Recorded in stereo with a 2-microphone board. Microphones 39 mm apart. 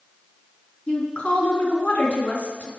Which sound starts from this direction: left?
A woman speaking, at 0.9 s.